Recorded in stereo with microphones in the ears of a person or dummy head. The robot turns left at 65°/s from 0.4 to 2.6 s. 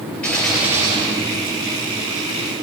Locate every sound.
0.2 s a gunshot: 5° left, 9 m; by 1.9 s 90° right, 9 m